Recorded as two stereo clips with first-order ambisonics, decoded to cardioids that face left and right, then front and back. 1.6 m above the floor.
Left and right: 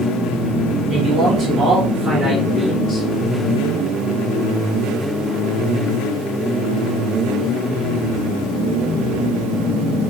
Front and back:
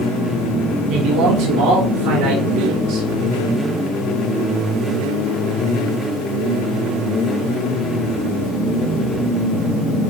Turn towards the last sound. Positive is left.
turn(degrees=-170)